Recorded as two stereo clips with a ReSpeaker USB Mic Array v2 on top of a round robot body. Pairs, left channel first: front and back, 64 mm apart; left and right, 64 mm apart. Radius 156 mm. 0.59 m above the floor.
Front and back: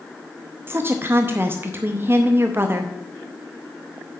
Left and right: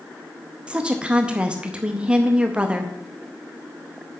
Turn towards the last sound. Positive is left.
turn(degrees=-155)